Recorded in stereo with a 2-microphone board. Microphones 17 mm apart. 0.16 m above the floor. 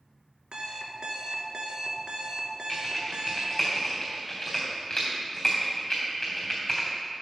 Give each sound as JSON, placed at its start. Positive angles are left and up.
{"t": 0.5, "sound": "an alarm clock", "side_deg": -55, "distance_m": 1.0}
{"t": 2.7, "sound": "typing on a keyboard", "side_deg": 30, "distance_m": 4.0}